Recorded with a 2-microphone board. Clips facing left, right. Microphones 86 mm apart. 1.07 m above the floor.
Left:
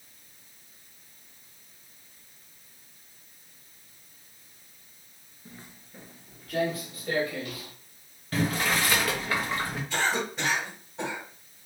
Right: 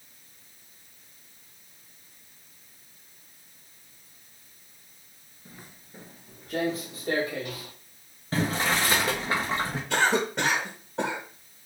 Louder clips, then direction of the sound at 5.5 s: Left 1 dB; 5° right (ahead or behind).